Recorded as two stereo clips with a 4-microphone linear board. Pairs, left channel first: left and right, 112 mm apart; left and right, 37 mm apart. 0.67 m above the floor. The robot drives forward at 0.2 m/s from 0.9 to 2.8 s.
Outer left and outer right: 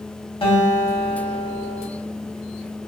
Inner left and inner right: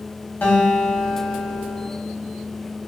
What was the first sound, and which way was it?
A guitar, 55° left (ahead or behind).